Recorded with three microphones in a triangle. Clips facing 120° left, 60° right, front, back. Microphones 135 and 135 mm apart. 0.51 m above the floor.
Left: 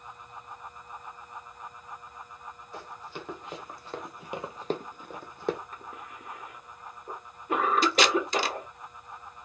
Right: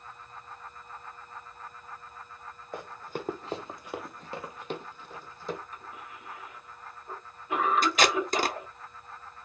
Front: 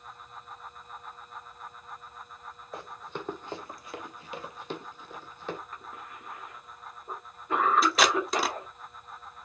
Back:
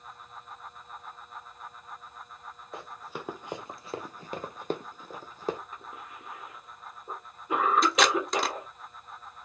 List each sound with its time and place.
2.7 s running footsteps: 90° right, 1.3 m; by 5.6 s 130° left, 1.3 m
5.7 s a cough: 110° left, 1.2 m
7.8 s tape being pulled: 85° right, 0.6 m